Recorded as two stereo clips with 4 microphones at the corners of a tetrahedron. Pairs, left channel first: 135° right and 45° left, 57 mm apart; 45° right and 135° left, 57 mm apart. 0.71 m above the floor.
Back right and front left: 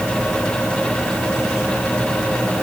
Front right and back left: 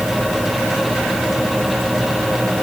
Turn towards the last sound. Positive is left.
No sound to turn to.